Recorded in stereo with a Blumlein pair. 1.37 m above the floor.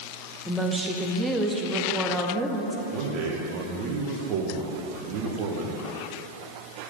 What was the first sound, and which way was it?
A woman speaking, 10° right.